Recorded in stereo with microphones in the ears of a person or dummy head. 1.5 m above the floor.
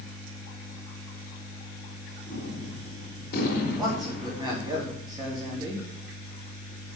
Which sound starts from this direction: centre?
A man speaking, at 3.8 s.